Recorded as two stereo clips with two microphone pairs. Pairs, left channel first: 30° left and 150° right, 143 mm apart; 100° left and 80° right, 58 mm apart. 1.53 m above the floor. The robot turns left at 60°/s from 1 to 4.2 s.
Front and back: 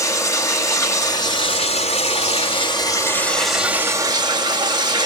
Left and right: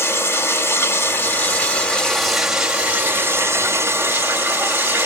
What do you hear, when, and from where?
0.0 s running water: 85° left, 1.8 m; by 5.1 s 105° right, 1.8 m